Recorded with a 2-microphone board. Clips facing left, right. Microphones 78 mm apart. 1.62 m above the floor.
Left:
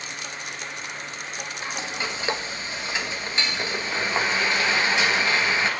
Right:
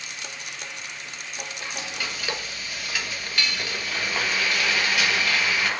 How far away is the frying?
About 1.4 m.